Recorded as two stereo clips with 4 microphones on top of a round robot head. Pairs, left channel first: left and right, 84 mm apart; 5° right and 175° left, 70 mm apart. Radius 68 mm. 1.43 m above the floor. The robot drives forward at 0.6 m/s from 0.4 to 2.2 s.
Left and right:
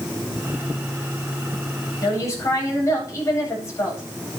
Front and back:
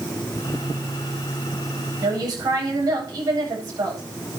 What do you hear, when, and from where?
2.0 s a woman speaking: 145° left, 8.5 m